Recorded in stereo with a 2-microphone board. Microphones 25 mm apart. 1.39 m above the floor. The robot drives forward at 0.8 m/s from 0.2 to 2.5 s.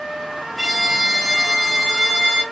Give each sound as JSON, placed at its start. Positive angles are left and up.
{"t": 0.6, "sound": "a violin", "side_deg": -20, "distance_m": 1.2}